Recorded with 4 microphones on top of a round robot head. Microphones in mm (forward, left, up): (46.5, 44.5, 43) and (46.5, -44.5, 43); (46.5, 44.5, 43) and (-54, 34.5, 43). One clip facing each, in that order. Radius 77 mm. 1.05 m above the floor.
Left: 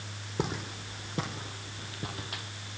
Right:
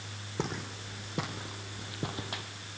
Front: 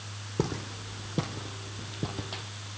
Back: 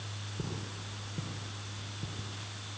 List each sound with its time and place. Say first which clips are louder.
0.4 s footsteps: left 2 dB, front 10 dB; 5° left, 3.5 m; by 2.4 s 35° right, 2 m